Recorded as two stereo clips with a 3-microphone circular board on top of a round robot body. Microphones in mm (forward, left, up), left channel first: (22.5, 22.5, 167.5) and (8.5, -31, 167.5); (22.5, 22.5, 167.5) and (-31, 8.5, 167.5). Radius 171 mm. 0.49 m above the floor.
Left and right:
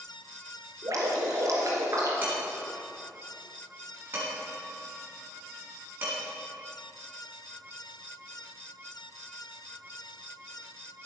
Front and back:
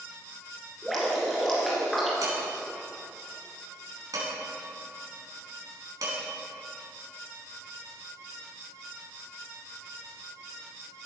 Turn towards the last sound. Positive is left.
turn(degrees=-165)